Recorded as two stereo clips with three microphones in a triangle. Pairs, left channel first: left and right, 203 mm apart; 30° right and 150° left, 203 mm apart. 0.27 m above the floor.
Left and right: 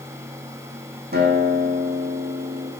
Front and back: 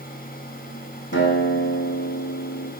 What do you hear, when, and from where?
1.1 s a guitar: 50° right, 3 m